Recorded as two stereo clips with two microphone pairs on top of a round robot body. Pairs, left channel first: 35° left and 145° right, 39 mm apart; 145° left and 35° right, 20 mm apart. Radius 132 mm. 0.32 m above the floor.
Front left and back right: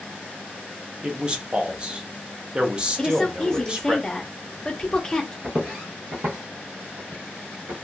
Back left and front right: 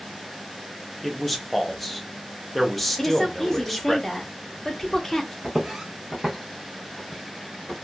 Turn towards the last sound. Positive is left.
turn(degrees=-135)